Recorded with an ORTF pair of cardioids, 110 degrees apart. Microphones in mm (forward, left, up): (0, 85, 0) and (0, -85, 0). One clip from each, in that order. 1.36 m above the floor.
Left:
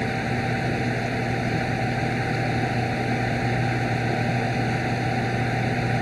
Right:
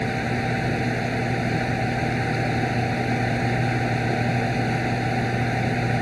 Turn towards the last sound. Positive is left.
turn(degrees=0)